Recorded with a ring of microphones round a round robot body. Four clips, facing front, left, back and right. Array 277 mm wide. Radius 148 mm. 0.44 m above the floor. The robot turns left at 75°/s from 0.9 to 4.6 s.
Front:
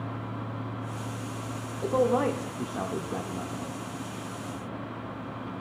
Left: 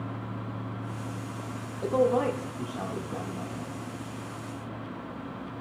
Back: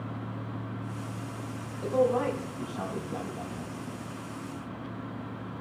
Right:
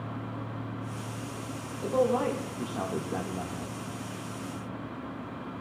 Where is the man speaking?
45° left, 1.6 m; by 3.8 s 105° right, 1.6 m.